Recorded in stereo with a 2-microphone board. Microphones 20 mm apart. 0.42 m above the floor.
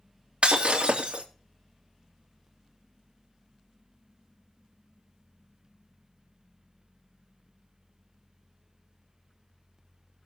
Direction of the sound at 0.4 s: 65° right (ahead or behind).